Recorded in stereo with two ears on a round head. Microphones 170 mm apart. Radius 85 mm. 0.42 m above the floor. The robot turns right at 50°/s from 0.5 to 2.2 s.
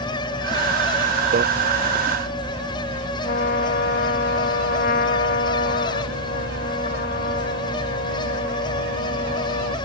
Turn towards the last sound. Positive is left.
turn(degrees=55)  # may be behind; listen again after turning